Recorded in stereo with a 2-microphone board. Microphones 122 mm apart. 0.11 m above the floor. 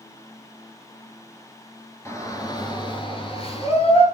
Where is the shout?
20° left (ahead or behind), 1.3 m; by 4.0 s 55° left (ahead or behind), 1.8 m.